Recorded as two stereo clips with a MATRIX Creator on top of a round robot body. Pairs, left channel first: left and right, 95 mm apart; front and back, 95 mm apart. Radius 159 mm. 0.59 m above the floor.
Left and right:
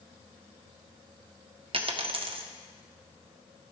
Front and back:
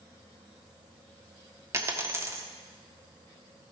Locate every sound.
1.7 s a dropped coin: 115° right, 0.6 m